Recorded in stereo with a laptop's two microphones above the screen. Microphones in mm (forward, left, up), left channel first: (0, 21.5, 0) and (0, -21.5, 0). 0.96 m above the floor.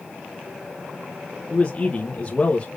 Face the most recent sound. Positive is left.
turn(degrees=25)  # may be behind; listen again after turning